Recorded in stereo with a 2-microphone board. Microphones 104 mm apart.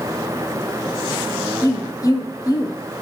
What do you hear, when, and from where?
1.6 s a woman speaking: 35° left (ahead or behind), 0.6 m